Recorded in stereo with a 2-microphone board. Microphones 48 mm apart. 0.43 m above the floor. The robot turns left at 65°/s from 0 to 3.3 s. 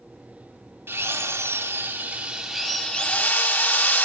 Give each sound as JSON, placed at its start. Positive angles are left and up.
{"t": 0.9, "sound": "a drill", "azimuth_deg": -70, "distance_m": 1.1}